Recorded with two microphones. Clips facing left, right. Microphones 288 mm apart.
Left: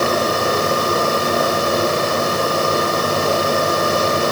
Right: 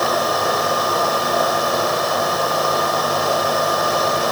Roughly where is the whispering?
No whispering in this recording.